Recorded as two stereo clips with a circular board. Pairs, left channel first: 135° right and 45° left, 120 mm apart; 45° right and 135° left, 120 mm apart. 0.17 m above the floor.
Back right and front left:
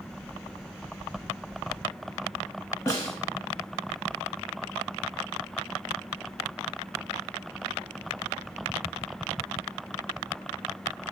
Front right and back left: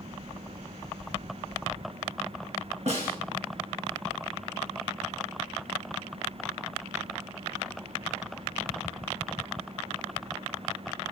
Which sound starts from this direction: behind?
A snare drum, at 2.9 s.